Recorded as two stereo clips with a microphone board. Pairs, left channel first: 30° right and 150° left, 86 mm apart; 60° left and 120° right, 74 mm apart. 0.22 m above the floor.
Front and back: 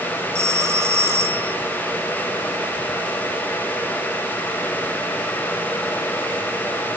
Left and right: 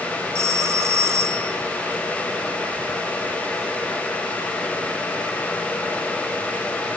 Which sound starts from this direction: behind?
A phone ringing, at 0.3 s.